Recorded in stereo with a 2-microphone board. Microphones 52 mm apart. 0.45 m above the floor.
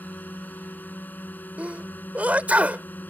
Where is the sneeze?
35° right (ahead or behind).